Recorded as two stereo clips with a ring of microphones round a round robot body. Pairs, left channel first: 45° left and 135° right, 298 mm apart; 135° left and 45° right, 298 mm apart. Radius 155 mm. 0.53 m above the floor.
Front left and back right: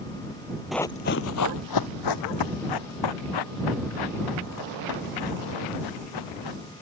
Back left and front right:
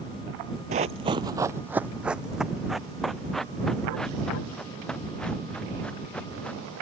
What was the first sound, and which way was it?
Running footsteps, 50° right.